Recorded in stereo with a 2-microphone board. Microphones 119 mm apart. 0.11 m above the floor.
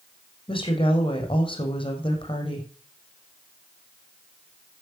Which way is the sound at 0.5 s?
50° left (ahead or behind).